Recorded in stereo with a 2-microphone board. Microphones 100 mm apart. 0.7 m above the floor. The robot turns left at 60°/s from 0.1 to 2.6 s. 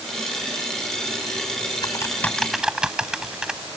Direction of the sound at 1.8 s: 40° left (ahead or behind).